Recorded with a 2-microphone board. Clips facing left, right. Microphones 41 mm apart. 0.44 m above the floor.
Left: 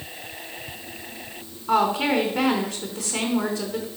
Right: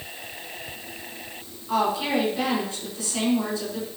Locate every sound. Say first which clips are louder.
1.7 s a woman speaking: left 3 dB; 70° left (ahead or behind), 4.5 m